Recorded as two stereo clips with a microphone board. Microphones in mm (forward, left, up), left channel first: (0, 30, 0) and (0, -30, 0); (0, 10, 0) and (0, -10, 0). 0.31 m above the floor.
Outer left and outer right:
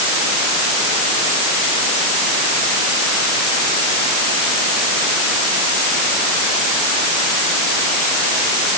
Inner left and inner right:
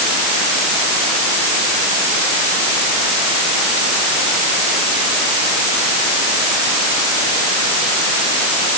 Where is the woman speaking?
No woman speaking in this recording.